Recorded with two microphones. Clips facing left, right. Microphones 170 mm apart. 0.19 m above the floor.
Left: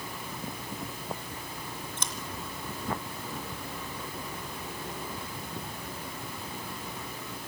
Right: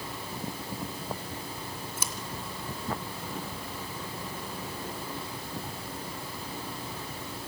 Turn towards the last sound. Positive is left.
turn(degrees=-10)  # may be behind; listen again after turning